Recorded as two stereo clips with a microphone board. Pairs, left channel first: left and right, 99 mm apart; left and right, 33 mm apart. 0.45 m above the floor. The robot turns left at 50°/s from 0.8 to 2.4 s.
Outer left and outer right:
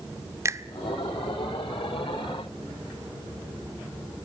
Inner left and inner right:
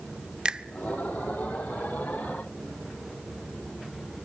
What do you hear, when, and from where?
0.5 s a finger snap: 25° right (ahead or behind), 0.5 m